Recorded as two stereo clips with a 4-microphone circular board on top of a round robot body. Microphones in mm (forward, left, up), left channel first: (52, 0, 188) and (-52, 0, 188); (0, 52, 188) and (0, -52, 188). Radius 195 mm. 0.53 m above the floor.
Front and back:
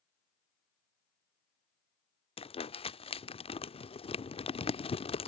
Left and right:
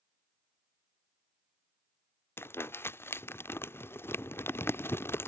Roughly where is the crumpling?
Ahead left.